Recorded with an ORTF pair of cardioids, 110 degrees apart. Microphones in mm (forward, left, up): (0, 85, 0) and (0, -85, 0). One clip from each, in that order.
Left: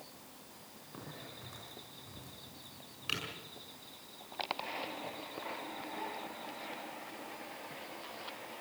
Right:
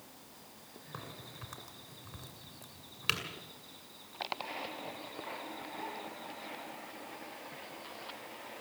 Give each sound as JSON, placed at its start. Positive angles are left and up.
{"t": 0.9, "sound": "a crack", "azimuth_deg": -55, "distance_m": 7.0}